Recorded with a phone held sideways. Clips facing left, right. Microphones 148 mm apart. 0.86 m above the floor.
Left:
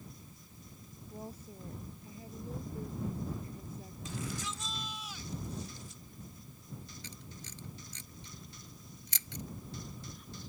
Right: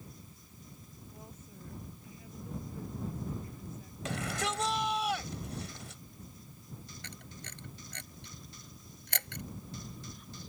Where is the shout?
80° right.